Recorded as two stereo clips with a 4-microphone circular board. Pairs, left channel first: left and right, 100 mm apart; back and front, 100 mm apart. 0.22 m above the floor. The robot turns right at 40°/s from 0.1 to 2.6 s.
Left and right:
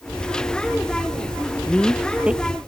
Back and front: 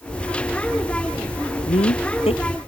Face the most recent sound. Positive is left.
turn(degrees=-155)